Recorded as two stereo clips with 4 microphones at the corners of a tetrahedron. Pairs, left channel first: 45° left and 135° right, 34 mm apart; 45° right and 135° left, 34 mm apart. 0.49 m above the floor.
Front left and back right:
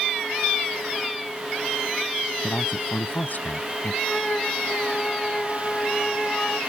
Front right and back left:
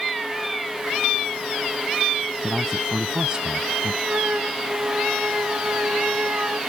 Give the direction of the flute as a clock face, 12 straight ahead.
8 o'clock.